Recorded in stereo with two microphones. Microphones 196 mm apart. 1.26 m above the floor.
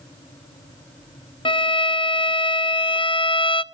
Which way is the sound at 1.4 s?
25° left (ahead or behind).